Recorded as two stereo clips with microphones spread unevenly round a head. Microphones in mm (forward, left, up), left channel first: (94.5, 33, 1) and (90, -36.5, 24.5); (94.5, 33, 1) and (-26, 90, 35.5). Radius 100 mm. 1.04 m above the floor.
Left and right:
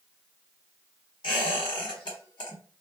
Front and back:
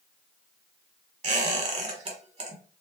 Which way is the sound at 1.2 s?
120° left.